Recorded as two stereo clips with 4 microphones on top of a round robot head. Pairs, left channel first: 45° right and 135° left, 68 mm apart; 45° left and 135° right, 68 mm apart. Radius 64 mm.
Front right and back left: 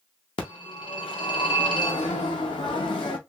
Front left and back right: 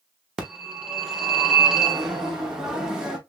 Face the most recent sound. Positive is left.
turn(degrees=-55)